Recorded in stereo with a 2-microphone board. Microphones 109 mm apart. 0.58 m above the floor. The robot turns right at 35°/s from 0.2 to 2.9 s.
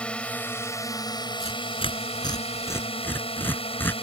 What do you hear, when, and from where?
0.0 s a drone: 10° left; by 4.0 s 105° left
1.4 s tearing paper: 70° left (ahead or behind); by 3.9 s 20° left (ahead or behind)